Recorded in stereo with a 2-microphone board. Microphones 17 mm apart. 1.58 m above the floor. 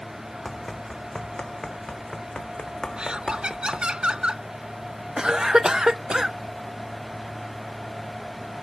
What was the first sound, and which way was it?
Running footsteps, 15° left (ahead or behind).